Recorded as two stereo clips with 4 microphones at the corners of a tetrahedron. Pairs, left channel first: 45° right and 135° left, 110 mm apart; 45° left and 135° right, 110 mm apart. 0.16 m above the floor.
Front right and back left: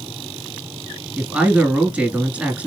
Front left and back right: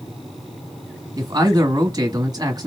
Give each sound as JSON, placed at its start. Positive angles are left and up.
{"t": 1.2, "sound": "a man speaking", "azimuth_deg": -155, "distance_m": 1.2}